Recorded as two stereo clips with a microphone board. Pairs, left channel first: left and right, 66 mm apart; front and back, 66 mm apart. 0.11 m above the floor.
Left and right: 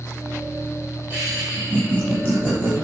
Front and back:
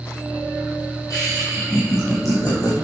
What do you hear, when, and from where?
1.1 s laughter: 25° right, 4 m; by 2.7 s 30° right, 5 m